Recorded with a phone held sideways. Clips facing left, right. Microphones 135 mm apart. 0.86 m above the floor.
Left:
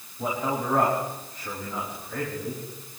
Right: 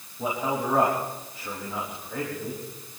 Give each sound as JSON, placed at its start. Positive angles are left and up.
{"t": 0.2, "sound": "a man speaking", "side_deg": -10, "distance_m": 6.5}